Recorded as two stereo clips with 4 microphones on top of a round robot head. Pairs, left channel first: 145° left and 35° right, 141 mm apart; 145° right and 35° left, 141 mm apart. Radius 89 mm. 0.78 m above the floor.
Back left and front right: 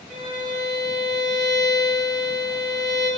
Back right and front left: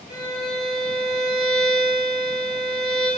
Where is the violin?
90° right, 1.7 m.